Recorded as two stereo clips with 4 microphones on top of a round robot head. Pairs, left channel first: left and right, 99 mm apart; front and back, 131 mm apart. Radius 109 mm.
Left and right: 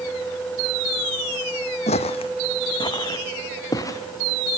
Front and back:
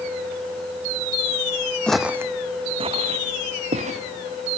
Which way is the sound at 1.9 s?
80° left.